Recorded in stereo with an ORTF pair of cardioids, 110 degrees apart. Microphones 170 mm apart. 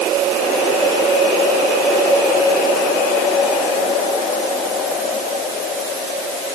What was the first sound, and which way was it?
Only background noise.